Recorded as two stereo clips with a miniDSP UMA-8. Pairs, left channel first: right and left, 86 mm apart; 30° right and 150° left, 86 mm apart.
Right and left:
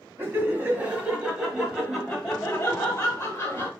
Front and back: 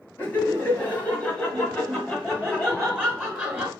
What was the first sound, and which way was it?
Laughter, 30° left.